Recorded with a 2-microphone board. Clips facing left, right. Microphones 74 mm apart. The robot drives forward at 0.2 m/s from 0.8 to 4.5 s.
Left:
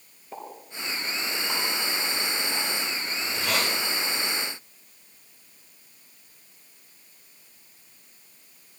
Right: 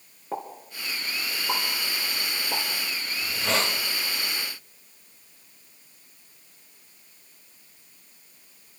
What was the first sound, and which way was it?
A pop, 65° right (ahead or behind).